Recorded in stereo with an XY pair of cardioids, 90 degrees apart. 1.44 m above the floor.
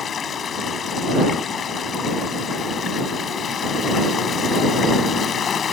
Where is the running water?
55° left.